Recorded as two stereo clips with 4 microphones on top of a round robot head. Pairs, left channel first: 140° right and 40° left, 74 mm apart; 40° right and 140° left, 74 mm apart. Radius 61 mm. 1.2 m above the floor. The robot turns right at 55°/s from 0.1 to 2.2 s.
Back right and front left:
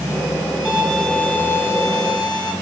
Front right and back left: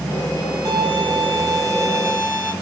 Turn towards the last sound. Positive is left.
turn(degrees=-160)